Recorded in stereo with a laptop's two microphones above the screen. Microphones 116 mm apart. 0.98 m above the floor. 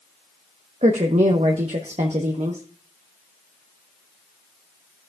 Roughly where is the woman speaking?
Right.